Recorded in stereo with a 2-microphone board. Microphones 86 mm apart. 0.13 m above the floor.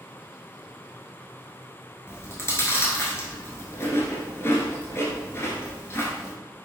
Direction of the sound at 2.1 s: 30° left (ahead or behind).